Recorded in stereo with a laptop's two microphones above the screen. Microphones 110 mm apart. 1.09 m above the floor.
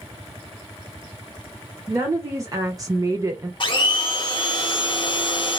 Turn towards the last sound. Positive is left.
turn(degrees=45)  # may be behind; listen again after turning